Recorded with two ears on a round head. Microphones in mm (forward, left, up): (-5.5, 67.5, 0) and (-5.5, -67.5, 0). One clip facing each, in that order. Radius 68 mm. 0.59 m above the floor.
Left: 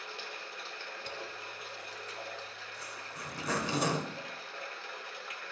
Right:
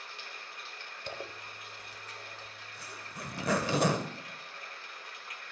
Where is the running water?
65° left (ahead or behind), 1.0 m.